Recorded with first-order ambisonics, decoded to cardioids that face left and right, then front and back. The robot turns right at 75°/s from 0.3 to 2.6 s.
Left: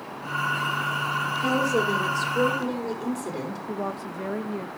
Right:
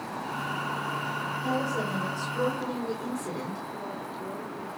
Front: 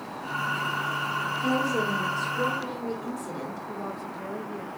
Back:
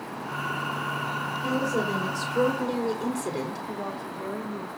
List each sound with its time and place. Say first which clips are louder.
1.4 s a woman speaking: left 7 dB, even; 75° left, 3.5 m; by 3.6 s 160° left, 3.5 m
3.7 s a woman speaking: left 5 dB, back 1 dB; 95° left, 1.0 m